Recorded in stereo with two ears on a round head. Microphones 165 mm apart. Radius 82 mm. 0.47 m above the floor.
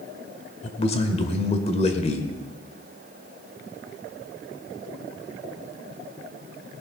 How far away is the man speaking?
About 1.6 m.